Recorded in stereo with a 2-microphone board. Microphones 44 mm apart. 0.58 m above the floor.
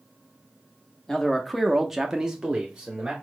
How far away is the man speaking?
About 0.9 m.